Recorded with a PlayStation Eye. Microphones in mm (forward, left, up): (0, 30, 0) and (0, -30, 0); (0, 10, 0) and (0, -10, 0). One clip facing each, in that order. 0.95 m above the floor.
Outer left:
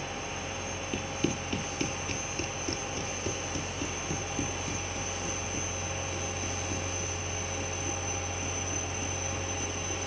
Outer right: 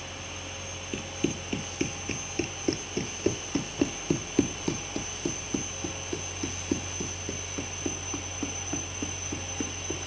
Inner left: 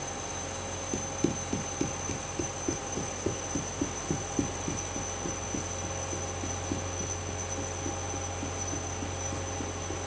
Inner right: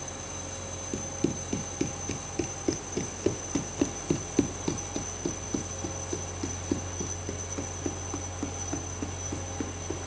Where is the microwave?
I don't hear a microwave.